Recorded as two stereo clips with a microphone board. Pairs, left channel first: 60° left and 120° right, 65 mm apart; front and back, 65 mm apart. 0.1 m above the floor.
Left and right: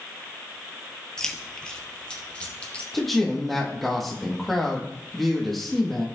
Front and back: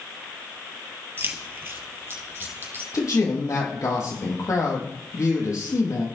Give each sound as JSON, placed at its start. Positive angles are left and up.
{"t": 1.2, "sound": "keys jangling", "azimuth_deg": 135, "distance_m": 1.4}
{"t": 2.9, "sound": "a man speaking", "azimuth_deg": -30, "distance_m": 3.0}